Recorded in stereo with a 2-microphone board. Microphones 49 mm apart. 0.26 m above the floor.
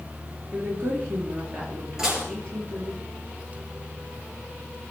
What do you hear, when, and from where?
0.5 s a woman speaking: 50° right (ahead or behind), 4 m
2.0 s dishes clattering: 10° right (ahead or behind), 3 m